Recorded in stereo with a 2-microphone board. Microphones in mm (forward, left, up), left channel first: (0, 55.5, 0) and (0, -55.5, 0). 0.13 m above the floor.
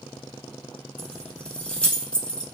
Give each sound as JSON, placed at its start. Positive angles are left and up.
{"t": 1.0, "sound": "keys jangling", "side_deg": 10, "distance_m": 0.7}